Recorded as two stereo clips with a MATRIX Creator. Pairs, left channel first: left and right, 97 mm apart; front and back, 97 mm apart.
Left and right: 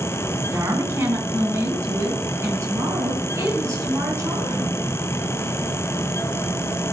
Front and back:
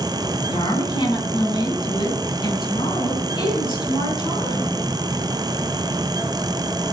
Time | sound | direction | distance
0.5 | a woman speaking | 30° right | 3.5 m